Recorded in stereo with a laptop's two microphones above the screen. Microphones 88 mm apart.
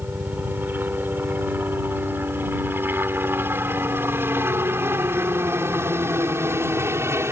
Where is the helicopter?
20° right (ahead or behind); by 7.3 s 30° right (ahead or behind).